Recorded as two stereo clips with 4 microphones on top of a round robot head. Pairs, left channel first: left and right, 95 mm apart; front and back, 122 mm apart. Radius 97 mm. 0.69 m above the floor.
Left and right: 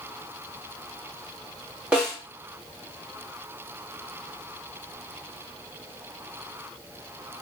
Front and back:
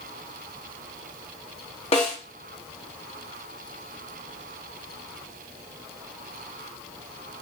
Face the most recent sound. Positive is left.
turn(degrees=-15)